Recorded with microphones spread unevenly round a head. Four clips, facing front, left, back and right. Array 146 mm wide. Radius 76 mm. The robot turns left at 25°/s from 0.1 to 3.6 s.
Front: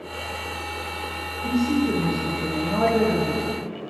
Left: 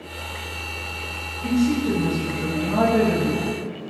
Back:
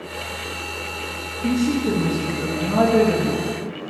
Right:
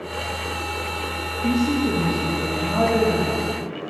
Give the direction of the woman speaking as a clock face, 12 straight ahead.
5 o'clock.